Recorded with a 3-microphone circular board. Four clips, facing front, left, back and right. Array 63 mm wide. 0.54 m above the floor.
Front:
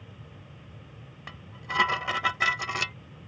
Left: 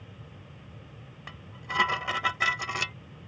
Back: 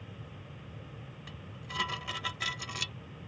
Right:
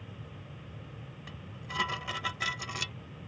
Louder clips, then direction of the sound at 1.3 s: Left 7 dB, front 10 dB; 30° left.